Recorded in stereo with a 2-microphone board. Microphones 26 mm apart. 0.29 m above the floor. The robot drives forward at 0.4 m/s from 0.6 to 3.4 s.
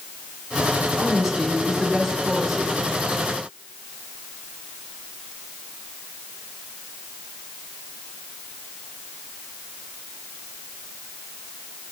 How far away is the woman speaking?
About 4 m.